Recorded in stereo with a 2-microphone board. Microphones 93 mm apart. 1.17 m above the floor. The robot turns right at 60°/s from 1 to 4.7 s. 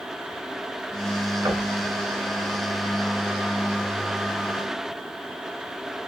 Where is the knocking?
40° right (ahead or behind), 1.1 m; by 1.7 s 55° right (ahead or behind), 1.1 m.